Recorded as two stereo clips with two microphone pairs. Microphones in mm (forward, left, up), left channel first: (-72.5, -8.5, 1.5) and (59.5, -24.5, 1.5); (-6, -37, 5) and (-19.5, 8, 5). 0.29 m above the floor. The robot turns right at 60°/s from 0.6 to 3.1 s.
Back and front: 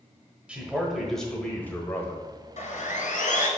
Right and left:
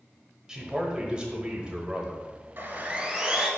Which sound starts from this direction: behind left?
Sawing, at 2.6 s.